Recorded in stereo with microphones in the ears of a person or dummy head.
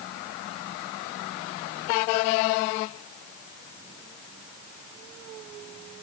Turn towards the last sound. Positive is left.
No sound to turn to.